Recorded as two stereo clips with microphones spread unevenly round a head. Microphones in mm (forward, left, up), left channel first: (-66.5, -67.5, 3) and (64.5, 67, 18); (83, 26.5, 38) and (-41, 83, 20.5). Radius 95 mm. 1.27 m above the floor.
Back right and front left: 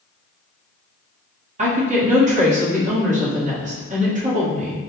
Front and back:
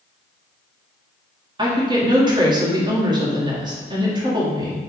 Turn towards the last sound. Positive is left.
turn(degrees=100)